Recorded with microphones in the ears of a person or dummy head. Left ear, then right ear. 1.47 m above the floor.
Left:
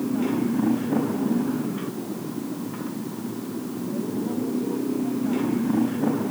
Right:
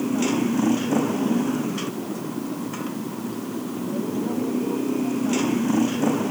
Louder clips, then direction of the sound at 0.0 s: Right 2 dB; 85° right.